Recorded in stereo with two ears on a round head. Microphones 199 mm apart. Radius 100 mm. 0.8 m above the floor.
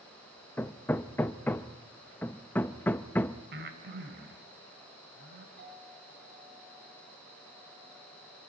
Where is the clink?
55° right (ahead or behind), 9 m.